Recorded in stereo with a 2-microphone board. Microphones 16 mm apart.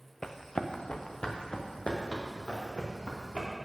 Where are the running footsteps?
30° left (ahead or behind), 0.8 m; by 3.5 s 80° left, 3.5 m.